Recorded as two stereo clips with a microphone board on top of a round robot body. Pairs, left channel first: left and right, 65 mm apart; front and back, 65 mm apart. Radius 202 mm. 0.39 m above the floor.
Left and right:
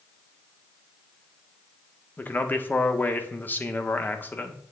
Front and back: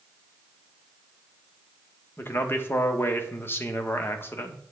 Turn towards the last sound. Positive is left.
turn(degrees=40)